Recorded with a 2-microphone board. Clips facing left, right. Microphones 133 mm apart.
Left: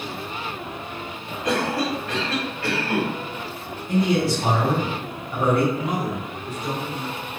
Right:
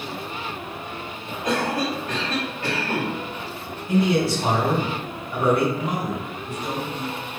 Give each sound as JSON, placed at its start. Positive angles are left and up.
{"t": 1.4, "sound": "a cough", "side_deg": -20, "distance_m": 1.6}
{"t": 3.9, "sound": "a man speaking", "side_deg": 0, "distance_m": 1.2}
{"t": 5.7, "sound": "a man speaking", "side_deg": -45, "distance_m": 1.3}